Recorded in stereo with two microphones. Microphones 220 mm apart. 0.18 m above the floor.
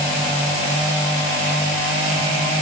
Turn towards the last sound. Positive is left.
No sound to turn to.